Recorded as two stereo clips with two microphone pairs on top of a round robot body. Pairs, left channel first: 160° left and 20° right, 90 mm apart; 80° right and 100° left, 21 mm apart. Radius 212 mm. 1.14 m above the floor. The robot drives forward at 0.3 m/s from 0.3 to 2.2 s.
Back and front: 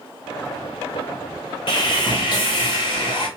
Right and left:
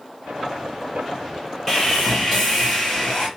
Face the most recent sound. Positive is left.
turn(degrees=-165)